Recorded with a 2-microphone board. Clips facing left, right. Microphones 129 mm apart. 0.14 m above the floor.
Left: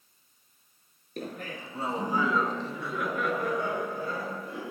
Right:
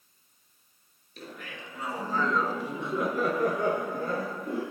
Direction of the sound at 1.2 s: 55° left (ahead or behind).